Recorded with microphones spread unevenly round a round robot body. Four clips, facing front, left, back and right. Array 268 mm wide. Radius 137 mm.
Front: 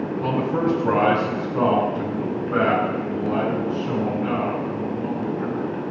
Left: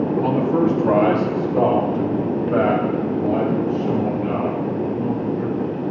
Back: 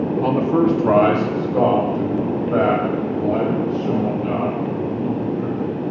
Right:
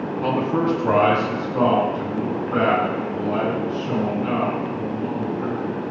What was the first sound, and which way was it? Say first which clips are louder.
A man speaking: even, back 5 dB; 170° right.